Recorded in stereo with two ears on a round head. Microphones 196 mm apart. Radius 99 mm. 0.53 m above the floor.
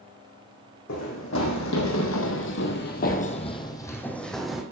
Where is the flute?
No flute in this recording.